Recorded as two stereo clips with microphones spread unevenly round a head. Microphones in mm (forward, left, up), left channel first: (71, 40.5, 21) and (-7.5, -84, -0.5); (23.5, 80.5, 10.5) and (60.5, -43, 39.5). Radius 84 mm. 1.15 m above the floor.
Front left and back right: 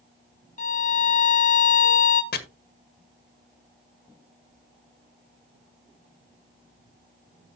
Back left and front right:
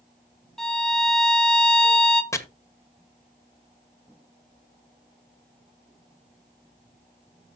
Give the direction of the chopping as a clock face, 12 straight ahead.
11 o'clock.